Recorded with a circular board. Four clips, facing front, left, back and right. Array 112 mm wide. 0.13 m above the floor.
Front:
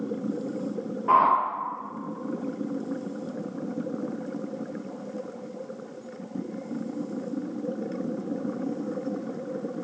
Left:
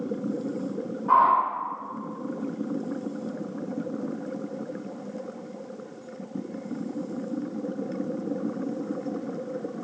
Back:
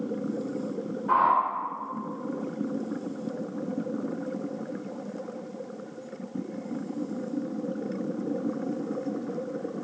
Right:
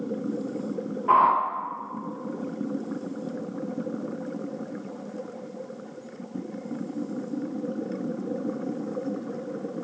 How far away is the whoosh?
About 0.6 m.